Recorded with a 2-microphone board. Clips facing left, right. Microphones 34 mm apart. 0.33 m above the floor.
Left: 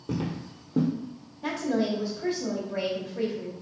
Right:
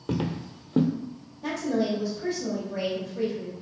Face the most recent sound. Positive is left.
turn(degrees=20)  # may be behind; listen again after turning